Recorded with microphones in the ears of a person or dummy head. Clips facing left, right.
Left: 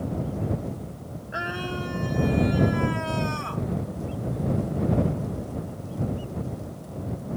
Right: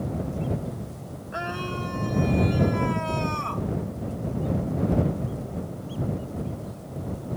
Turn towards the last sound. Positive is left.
turn(degrees=5)  # may be behind; listen again after turning